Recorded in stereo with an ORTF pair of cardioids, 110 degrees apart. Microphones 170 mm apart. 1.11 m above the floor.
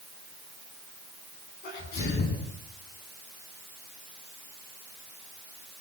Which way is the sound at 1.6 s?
70° left.